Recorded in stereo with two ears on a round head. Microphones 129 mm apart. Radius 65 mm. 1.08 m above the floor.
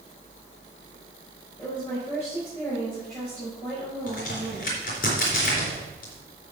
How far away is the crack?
About 4 m.